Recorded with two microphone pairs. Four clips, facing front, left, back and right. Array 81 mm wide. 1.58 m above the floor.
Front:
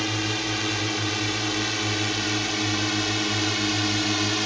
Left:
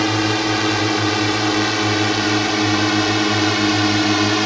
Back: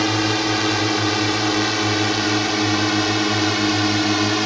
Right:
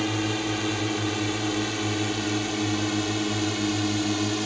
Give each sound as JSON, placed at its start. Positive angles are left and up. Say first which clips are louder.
{"t": 0.0, "sound": "a drone", "louder": "left 8 dB, back 8 dB", "azimuth_deg": 135}